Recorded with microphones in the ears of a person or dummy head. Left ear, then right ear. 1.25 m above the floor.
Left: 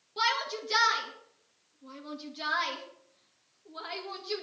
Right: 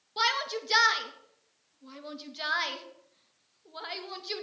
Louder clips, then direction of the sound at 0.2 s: Right 1 dB; 25° right (ahead or behind).